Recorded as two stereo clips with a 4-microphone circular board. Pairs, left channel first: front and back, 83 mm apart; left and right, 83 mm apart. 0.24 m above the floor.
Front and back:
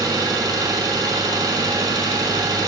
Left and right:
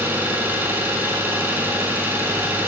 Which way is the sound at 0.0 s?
150° right.